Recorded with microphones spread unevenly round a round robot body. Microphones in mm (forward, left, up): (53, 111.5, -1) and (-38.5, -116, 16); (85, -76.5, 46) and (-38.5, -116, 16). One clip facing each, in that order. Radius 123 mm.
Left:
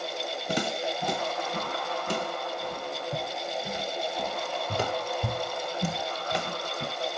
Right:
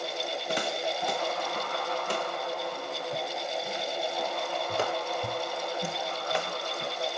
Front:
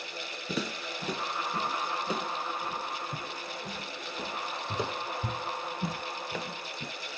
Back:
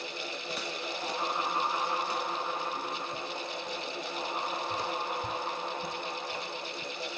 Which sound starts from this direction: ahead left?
Footsteps, at 0.5 s.